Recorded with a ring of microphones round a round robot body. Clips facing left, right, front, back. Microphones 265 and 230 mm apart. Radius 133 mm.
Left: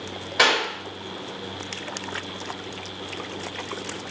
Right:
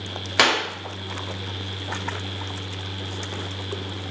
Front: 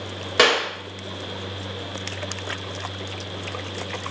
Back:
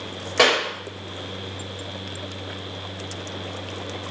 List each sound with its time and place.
0.4 s a clap: 75° right, 1.8 m